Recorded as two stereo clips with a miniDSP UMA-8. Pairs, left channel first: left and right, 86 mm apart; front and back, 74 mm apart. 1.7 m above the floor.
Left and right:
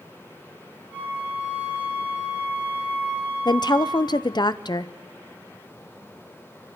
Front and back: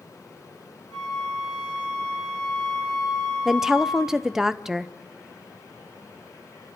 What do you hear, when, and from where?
0.9 s a flute: 20° right, 6.5 m
3.5 s a woman speaking: 100° left, 0.7 m